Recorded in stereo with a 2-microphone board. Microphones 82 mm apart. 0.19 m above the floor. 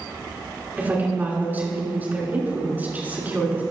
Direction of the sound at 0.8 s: 20° right (ahead or behind).